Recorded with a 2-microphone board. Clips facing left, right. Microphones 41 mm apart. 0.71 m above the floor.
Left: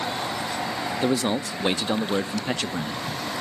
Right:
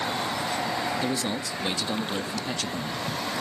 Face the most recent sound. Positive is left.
turn(degrees=35)  # may be behind; listen again after turning